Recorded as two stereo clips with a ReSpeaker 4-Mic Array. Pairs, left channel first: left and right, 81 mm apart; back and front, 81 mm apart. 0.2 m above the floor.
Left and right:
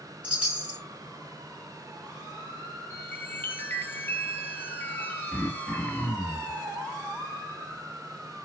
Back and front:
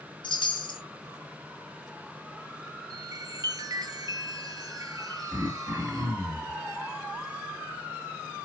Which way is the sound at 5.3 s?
10° left.